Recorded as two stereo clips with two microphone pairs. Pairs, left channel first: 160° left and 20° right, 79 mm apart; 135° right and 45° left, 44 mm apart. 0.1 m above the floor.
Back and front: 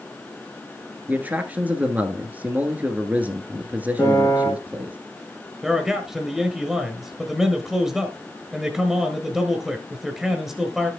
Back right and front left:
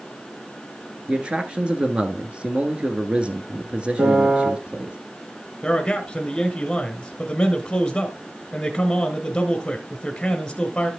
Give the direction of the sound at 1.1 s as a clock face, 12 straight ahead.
11 o'clock.